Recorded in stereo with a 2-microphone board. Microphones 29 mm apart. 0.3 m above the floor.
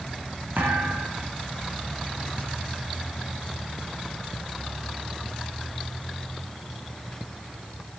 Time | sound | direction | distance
0.6 | a thud | 75° right (ahead or behind) | 4.5 m